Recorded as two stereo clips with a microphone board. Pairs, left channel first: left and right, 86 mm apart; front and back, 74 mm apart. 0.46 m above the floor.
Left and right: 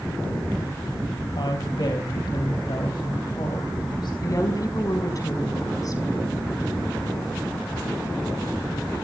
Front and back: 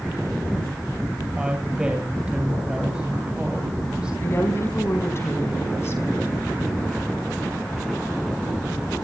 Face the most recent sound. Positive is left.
turn(degrees=50)